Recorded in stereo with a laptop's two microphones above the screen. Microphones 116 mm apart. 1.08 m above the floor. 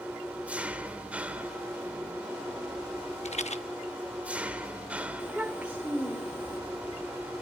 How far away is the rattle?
About 0.9 m.